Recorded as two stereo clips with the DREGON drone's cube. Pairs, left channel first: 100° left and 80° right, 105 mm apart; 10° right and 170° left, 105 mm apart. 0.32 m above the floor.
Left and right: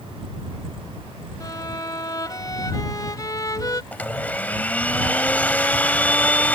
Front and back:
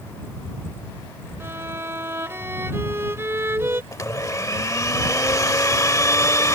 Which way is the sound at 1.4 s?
120° left.